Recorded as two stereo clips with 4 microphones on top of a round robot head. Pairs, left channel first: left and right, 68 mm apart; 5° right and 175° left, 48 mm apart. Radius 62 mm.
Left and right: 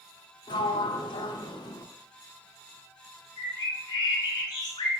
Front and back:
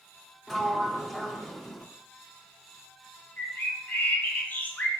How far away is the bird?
About 3 m.